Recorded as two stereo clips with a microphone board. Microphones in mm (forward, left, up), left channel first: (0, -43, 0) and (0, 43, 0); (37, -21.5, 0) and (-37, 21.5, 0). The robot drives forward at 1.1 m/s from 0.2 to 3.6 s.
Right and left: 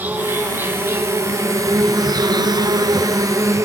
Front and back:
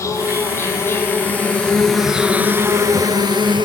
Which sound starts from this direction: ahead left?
An insect, at 0.0 s.